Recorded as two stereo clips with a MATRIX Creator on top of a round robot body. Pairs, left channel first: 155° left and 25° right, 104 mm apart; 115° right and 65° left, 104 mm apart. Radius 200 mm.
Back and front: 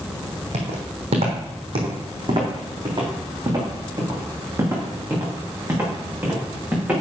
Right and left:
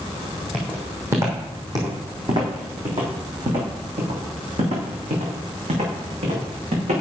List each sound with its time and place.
0.5 s footsteps: 10° right, 2 m; by 7.0 s 55° left, 4.5 m